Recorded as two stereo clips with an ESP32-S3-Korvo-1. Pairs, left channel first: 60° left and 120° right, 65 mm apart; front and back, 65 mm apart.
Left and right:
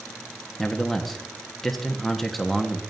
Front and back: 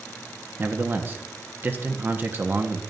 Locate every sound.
0.6 s a man speaking: 145° left, 1.2 m